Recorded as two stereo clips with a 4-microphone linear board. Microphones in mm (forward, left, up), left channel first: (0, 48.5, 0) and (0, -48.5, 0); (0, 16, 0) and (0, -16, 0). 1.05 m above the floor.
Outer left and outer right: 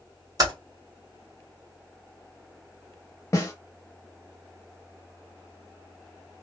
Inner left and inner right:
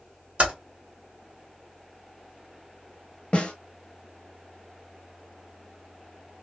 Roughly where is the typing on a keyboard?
Right.